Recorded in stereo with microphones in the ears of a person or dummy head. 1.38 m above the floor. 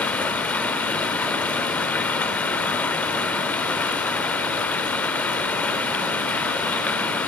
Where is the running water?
10° left (ahead or behind), 1.3 m.